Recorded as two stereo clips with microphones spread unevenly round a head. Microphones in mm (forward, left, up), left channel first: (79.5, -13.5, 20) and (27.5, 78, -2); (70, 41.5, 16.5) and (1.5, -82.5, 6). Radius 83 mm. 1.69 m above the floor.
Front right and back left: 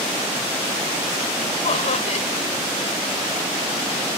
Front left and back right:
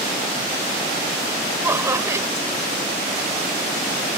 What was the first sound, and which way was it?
Laughter, 45° right.